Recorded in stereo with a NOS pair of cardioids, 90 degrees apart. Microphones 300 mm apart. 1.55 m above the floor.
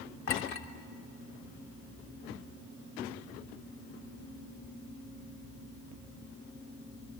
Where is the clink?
60° left, 3.5 m.